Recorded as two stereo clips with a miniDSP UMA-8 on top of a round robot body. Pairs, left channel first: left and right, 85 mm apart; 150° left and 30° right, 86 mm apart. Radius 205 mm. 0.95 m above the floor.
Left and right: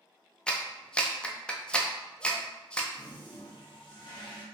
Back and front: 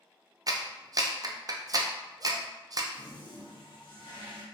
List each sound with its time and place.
0.5 s a clap: 10° left, 0.5 m
2.9 s a toilet flushing: 120° left, 0.9 m